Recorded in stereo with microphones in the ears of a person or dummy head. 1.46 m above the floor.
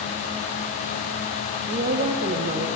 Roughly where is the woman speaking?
Right.